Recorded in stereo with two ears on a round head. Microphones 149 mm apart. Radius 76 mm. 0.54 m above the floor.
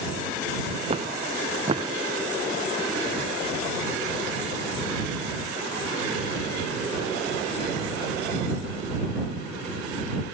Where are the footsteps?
35° right (ahead or behind).